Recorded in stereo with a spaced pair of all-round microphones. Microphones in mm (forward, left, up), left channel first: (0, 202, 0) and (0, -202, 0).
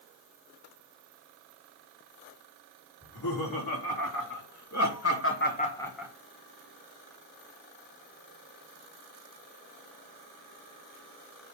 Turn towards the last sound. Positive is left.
turn(degrees=-10)  # may be behind; listen again after turning